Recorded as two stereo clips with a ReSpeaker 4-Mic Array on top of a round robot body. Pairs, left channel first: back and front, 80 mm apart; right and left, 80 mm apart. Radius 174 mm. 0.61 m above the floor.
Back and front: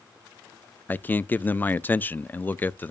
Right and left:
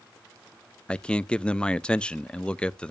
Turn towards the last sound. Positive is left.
turn(degrees=-150)